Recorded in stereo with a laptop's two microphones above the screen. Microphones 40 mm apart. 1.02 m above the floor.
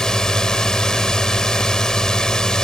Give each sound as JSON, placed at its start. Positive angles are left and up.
{"t": 0.0, "sound": "a drone", "side_deg": 15}